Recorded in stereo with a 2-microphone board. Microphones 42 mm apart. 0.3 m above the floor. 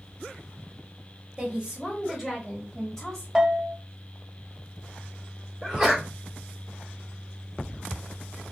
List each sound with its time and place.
1.4 s a woman speaking: 20° right (ahead or behind), 1.2 m; by 3.2 s 15° left (ahead or behind), 1.4 m
3.4 s a bell: 20° right (ahead or behind), 0.5 m
5.6 s a sneeze: 10° right (ahead or behind), 0.9 m